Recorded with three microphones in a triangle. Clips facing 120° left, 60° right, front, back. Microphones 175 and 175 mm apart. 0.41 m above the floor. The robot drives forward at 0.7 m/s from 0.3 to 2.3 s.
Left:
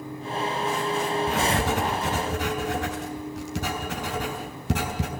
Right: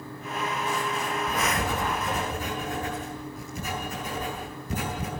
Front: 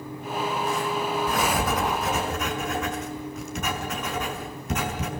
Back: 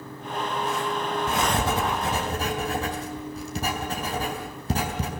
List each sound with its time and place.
1.3 s writing: 115° left, 5 m; by 5.1 s 125° left, 5 m